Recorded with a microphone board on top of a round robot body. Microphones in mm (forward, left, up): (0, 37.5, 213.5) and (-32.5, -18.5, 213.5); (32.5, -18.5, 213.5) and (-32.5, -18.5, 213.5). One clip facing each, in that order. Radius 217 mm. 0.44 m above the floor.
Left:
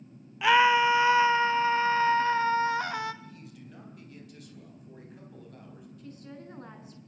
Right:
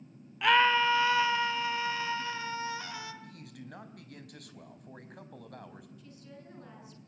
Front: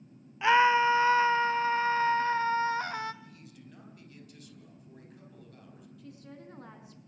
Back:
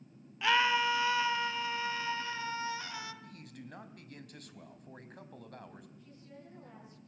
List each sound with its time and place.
0.4 s a scream: 20° right, 1.3 m; by 3.1 s 35° left, 2 m
3.2 s a man speaking: 145° right, 4 m
6.0 s a woman speaking: 10° left, 7 m